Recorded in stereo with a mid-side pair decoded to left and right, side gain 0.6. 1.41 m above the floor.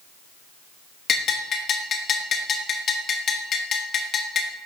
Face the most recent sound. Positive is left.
turn(degrees=45)